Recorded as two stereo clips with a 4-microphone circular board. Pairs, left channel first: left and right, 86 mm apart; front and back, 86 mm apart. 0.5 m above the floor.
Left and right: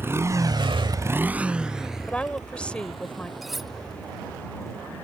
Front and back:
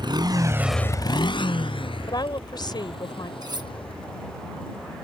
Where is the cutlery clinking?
175° right.